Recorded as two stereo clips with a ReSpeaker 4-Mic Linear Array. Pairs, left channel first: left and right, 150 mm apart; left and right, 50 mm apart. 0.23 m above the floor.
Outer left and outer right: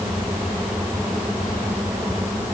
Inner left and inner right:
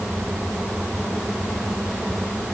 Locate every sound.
Only background noise.